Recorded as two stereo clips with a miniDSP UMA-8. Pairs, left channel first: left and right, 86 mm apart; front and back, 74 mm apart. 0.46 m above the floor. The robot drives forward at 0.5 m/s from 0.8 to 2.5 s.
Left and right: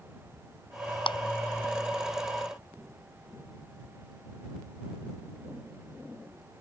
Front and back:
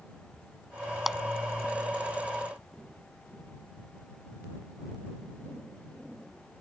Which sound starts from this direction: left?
A clap, at 1.1 s.